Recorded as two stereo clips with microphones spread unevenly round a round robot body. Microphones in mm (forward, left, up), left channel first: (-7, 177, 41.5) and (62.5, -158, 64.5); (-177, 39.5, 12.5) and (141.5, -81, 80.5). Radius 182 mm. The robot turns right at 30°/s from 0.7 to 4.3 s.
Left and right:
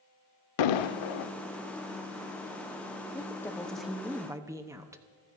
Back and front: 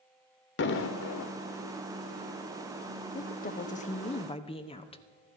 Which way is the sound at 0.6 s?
95° left.